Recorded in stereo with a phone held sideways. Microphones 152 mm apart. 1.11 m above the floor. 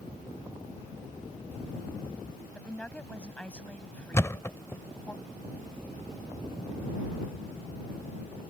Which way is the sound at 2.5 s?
10° left (ahead or behind).